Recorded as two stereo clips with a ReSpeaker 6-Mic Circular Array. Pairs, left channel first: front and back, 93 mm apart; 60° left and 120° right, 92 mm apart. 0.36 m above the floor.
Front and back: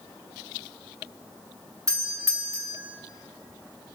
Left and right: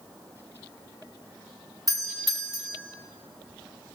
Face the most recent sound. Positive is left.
turn(degrees=-140)